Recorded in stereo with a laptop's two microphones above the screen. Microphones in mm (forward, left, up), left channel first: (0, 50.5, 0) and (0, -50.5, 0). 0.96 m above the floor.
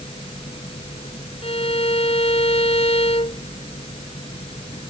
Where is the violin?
75° left (ahead or behind).